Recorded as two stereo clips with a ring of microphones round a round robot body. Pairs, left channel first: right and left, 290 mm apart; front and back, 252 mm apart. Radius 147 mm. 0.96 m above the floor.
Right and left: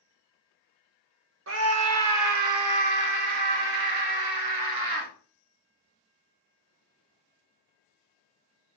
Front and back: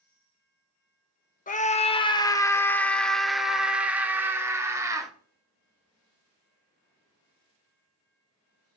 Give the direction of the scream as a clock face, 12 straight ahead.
10 o'clock.